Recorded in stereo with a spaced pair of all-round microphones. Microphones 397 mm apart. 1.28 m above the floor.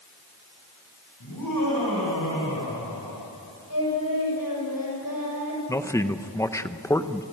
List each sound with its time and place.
1.2 s laughter: 60° left (ahead or behind), 6 m; by 3.3 s 55° left (ahead or behind), 5 m
3.7 s singing: 60° left (ahead or behind), 7 m
5.7 s a man speaking: 5° left (ahead or behind), 0.8 m